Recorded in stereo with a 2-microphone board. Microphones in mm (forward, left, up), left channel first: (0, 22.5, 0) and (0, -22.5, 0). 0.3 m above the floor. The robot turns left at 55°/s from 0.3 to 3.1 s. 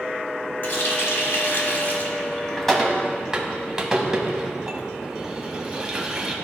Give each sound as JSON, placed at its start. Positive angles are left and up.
{"t": 0.6, "sound": "a running tap", "side_deg": 50, "distance_m": 1.1}